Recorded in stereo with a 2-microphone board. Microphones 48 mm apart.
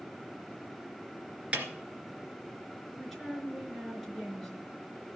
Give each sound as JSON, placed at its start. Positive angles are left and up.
{"t": 1.5, "sound": "a snare drum", "side_deg": -25, "distance_m": 2.5}
{"t": 2.9, "sound": "a woman speaking", "side_deg": 5, "distance_m": 4.5}